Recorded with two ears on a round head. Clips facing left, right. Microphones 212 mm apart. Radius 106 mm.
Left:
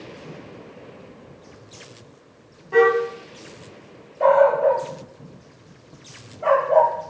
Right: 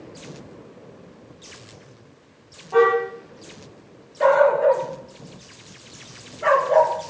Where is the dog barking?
30° right (ahead or behind), 2.5 m.